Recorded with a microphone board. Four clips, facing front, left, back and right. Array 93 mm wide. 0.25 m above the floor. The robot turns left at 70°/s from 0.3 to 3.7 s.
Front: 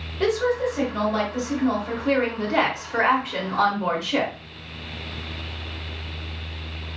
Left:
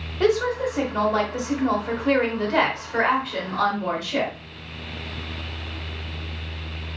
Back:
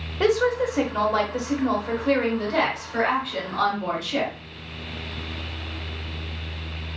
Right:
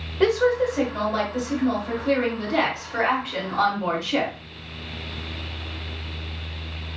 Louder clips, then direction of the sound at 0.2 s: Right 2 dB, back 1 dB; 165° right.